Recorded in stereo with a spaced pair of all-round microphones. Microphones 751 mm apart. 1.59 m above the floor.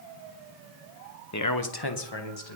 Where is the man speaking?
20° left (ahead or behind), 1.0 m; by 2.5 s 35° left (ahead or behind), 2.5 m.